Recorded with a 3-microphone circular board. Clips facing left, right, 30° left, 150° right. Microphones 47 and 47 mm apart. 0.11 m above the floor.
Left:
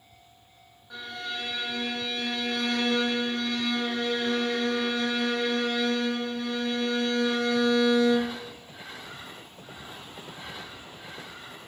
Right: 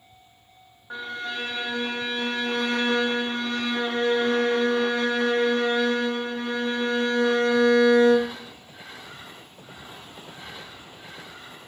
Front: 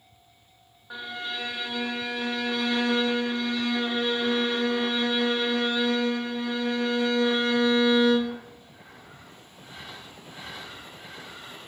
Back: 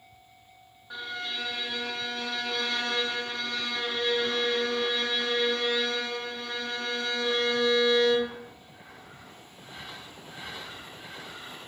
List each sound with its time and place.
0.9 s a violin: 40° right, 0.6 m